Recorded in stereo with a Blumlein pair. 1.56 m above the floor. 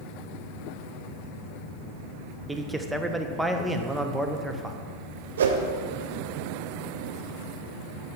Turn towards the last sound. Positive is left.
turn(degrees=-65)